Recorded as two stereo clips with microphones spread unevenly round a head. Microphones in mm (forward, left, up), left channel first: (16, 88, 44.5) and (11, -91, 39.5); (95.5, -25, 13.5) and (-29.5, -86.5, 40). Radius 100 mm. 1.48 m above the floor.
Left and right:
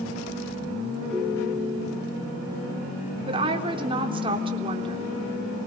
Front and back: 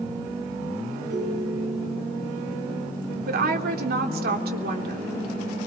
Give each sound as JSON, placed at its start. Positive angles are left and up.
{"t": 1.1, "sound": "a ringtone", "azimuth_deg": 175, "distance_m": 6.5}
{"t": 3.3, "sound": "a woman speaking", "azimuth_deg": -155, "distance_m": 3.5}